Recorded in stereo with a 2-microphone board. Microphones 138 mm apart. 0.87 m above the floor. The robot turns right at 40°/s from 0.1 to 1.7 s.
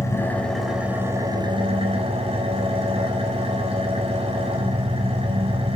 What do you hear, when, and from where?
0.0 s an engine running: 160° left, 3.5 m; by 5.8 s 135° right, 3.5 m